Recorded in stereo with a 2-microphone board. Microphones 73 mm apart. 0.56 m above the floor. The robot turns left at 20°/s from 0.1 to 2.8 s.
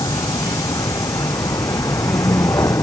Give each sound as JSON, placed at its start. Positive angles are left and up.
{"t": 0.0, "sound": "a vehicle", "side_deg": 80}